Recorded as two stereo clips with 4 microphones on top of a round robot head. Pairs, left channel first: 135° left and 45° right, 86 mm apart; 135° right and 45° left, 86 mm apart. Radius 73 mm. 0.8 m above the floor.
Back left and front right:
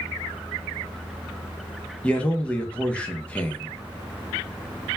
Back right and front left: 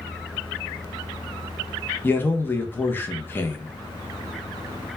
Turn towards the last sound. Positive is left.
turn(degrees=-165)